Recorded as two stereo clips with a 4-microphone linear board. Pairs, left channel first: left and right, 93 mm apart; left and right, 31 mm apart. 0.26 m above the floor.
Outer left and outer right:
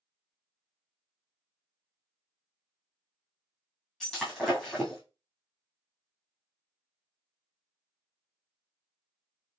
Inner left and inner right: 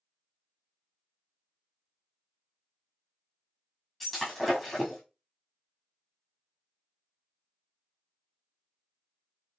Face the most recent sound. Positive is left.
turn(degrees=5)  # may be behind; listen again after turning